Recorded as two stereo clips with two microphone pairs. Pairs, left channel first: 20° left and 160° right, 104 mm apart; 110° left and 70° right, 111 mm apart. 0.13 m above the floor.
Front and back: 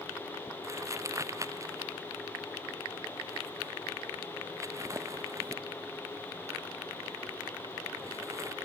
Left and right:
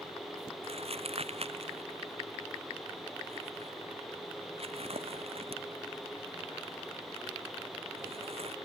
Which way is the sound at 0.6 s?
100° right.